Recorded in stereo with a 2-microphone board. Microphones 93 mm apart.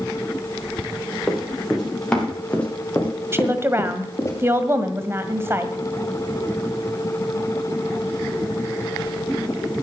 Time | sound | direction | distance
1.3 | running footsteps | centre (ahead or behind) | 6.5 m
3.3 | a woman speaking | 25° right (ahead or behind) | 1.8 m